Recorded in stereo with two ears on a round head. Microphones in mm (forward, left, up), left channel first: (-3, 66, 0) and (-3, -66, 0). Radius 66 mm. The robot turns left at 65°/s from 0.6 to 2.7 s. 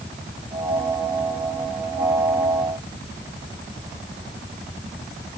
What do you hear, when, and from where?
Only background noise.